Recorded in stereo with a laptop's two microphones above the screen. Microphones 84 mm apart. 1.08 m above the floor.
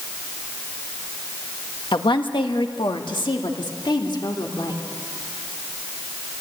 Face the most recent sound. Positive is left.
turn(degrees=65)  # may be behind; listen again after turning